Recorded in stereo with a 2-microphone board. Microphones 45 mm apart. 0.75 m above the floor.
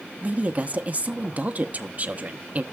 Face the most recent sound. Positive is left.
turn(degrees=-35)  # may be behind; listen again after turning